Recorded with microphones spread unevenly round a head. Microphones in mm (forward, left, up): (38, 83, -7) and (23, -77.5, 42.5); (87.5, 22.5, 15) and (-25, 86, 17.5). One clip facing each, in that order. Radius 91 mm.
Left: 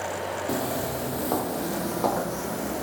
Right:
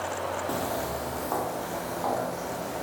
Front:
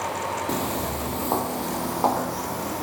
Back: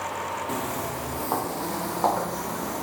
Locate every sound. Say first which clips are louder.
0.5 s footsteps: left 2 dB, front 3 dB; straight ahead, 2 m; by 2.8 s 55° left, 3 m